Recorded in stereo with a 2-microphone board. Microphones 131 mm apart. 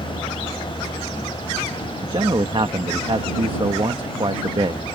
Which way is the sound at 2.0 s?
45° right (ahead or behind).